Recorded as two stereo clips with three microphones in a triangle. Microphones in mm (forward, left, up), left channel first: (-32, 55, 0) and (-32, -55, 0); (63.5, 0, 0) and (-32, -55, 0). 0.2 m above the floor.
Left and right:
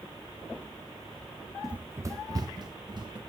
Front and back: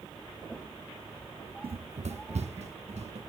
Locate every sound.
1.6 s running footsteps: straight behind, 0.6 m; by 3.2 s 140° right, 2.5 m